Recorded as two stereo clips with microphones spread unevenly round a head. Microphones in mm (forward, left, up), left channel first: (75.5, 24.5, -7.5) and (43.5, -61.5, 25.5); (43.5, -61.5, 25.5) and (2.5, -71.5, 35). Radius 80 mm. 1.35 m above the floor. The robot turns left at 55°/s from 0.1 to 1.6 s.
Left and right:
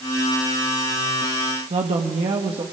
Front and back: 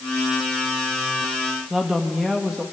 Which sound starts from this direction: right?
A woman speaking, at 1.7 s.